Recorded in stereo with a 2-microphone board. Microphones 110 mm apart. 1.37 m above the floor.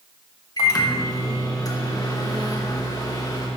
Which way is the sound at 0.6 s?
35° left (ahead or behind).